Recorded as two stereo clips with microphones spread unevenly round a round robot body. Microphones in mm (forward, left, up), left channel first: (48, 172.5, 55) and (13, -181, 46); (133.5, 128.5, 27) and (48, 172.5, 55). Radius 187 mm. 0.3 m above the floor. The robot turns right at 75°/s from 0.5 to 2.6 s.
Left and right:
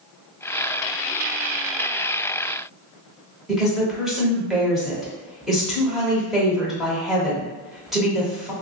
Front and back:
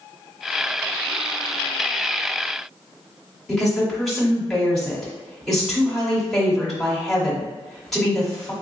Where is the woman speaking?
10° right, 1.0 m.